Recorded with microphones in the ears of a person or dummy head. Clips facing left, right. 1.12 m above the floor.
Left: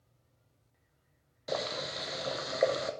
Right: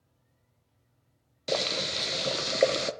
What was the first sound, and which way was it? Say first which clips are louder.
Boiling: right 4 dB; 40° right (ahead or behind).